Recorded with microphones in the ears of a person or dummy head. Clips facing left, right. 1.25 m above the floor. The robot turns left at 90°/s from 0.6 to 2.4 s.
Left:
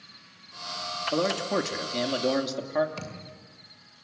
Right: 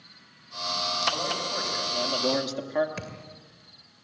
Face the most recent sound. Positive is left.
turn(degrees=-20)  # may be behind; listen again after turning